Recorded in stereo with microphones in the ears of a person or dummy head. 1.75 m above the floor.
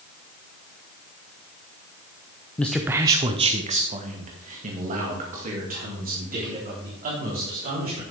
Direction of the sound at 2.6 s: 10° left (ahead or behind).